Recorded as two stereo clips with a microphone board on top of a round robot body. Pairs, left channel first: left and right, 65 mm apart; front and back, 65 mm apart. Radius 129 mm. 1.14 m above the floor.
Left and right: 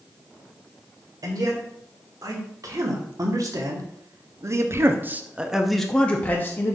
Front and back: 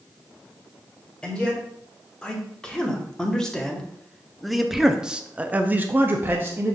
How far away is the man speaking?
About 2 m.